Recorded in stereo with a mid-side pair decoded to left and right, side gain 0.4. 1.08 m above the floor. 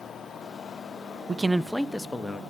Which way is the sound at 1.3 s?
35° right.